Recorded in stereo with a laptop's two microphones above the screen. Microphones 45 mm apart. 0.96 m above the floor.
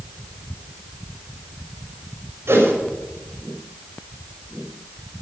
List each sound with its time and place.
2.5 s a whoosh: 60° right (ahead or behind), 5.5 m